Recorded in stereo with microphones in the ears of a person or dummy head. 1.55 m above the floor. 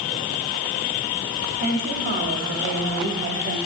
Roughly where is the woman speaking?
Right.